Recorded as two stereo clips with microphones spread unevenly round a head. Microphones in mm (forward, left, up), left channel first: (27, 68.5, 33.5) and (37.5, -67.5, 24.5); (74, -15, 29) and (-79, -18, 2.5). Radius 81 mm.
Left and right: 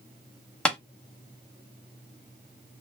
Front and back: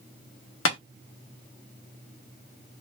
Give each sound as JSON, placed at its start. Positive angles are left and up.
{"t": 0.7, "sound": "tapping", "azimuth_deg": 10, "distance_m": 1.0}